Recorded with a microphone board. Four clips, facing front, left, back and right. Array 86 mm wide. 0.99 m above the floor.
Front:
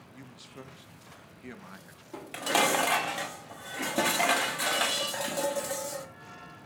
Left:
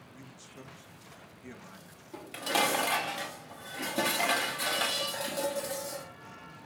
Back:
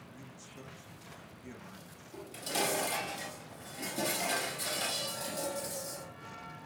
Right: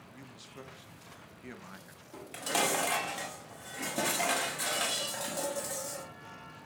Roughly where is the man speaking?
Ahead right.